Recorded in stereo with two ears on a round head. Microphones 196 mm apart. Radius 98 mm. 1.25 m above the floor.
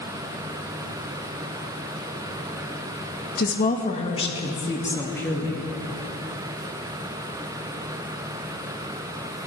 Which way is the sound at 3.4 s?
45° left (ahead or behind).